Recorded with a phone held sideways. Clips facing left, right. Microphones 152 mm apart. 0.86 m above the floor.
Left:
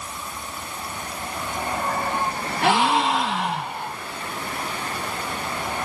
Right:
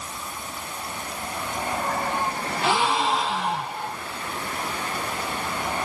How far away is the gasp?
About 2 m.